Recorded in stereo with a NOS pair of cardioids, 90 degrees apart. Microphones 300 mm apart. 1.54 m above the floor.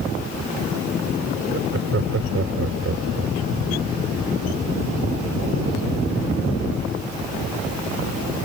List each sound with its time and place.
1.5 s laughter: 45° right